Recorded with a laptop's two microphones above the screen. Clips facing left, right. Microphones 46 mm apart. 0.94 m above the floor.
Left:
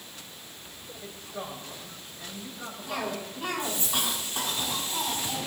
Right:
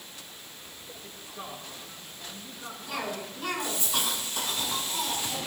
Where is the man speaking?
75° left (ahead or behind), 5 m.